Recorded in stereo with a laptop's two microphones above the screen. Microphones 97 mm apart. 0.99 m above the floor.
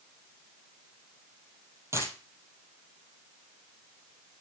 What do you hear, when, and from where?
1.9 s a dropped coin: 25° right (ahead or behind), 2.5 m